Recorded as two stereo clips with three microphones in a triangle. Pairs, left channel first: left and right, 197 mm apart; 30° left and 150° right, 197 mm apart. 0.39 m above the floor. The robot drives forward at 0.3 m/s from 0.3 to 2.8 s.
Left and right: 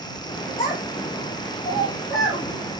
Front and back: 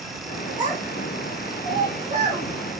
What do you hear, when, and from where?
0.6 s a child speaking: 145° left, 2.5 m; by 2.4 s 150° left, 3 m